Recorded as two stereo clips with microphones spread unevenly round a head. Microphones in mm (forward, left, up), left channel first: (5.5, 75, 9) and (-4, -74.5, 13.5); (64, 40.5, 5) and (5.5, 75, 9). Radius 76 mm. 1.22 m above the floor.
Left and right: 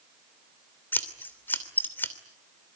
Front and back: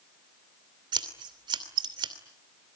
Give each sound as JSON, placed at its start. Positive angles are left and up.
{"t": 0.9, "sound": "scissors", "azimuth_deg": 165, "distance_m": 3.0}